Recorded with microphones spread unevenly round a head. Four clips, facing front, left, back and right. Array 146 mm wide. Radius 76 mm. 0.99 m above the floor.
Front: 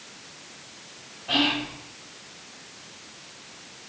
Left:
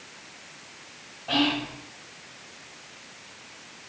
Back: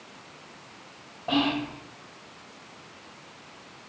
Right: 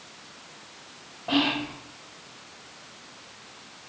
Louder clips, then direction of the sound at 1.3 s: Even, back 1 dB; 145° right.